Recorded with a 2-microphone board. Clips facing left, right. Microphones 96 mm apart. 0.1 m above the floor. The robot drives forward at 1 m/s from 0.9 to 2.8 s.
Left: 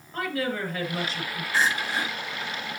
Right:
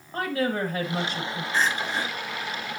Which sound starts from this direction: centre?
Crying, at 1.5 s.